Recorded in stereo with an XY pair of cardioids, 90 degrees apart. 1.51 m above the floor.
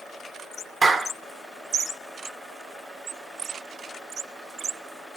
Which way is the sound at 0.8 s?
35° right.